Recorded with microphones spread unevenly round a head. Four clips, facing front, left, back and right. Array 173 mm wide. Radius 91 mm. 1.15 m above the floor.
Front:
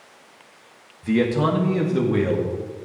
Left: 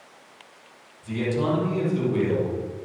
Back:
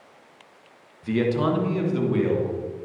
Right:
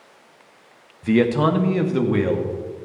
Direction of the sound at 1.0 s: 85° right.